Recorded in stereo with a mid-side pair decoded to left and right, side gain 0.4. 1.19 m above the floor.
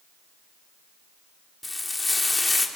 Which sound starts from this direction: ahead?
Frying, at 1.6 s.